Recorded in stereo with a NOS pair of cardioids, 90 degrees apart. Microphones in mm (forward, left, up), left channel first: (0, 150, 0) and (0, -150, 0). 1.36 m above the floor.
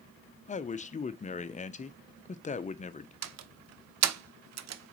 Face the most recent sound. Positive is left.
turn(degrees=-55)